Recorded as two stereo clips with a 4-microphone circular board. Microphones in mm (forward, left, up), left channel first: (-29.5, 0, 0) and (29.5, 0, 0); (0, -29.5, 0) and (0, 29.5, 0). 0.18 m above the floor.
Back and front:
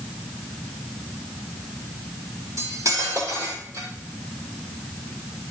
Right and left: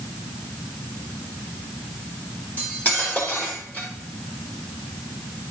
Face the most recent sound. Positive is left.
turn(degrees=-30)